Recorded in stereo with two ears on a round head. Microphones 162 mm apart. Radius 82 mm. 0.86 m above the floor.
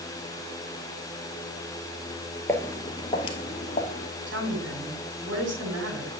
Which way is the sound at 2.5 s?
15° left (ahead or behind).